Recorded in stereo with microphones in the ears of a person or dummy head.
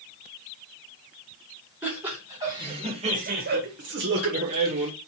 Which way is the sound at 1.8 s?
5° right (ahead or behind).